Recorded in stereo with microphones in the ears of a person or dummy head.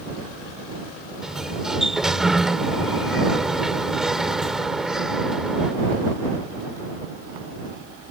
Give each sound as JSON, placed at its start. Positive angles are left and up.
{"t": 1.2, "sound": "a sliding door", "side_deg": -5}